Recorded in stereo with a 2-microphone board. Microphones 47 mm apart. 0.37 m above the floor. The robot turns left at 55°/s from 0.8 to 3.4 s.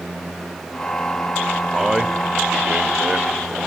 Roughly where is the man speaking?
Centre.